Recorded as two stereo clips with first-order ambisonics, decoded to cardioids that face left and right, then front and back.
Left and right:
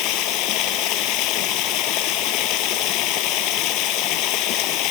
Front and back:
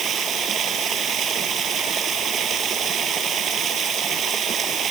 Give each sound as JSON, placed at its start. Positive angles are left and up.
{"t": 0.0, "sound": "running water", "azimuth_deg": 120}